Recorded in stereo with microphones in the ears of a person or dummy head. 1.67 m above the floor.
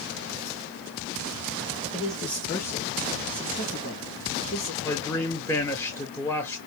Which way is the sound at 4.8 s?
15° left (ahead or behind).